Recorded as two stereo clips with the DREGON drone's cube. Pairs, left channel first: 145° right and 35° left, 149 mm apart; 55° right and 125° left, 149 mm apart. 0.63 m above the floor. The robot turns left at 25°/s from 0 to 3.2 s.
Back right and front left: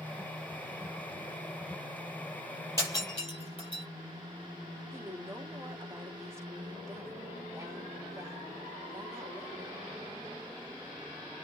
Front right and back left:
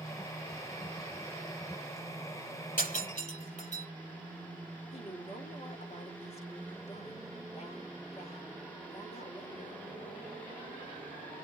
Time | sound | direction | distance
2.8 | breaking glass | 75° right | 6 m
4.9 | a woman speaking | 35° right | 1.6 m